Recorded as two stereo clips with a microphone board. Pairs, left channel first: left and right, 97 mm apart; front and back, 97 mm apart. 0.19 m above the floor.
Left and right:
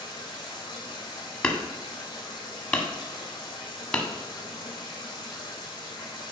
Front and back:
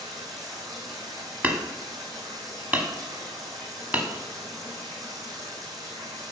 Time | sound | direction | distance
0.0 | running water | 130° left | 3 m
1.4 | hammering | 145° left | 1.0 m